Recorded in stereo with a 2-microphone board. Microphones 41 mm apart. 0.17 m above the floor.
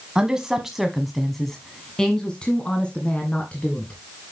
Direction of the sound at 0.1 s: 20° right (ahead or behind).